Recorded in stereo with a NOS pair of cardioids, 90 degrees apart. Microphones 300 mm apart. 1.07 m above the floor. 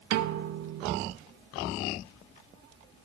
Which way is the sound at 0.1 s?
65° right.